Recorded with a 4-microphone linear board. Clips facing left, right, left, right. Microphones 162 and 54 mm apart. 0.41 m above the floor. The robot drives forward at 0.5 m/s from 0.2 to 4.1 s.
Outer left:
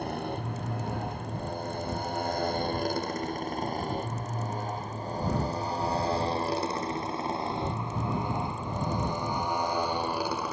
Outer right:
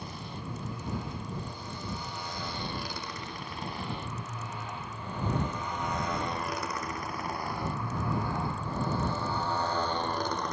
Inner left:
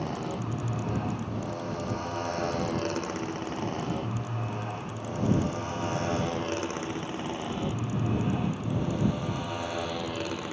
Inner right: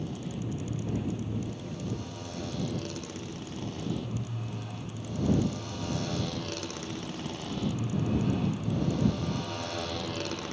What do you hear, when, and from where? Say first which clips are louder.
0.0 s a motorcycle: outer left 8 dB, inner left 4 dB; 60° left (ahead or behind); by 10.5 s 10° left (ahead or behind)